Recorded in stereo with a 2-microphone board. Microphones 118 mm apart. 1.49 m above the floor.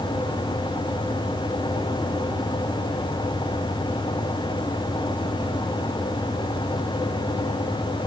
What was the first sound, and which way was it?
Only background noise.